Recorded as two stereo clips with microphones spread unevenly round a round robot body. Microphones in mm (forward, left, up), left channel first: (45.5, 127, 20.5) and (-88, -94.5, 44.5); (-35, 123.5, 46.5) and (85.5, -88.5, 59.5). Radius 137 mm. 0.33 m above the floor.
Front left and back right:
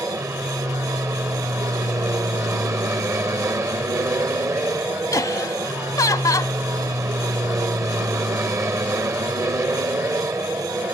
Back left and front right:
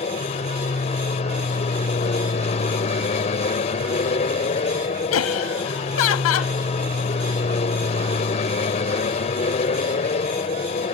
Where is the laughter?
135° left.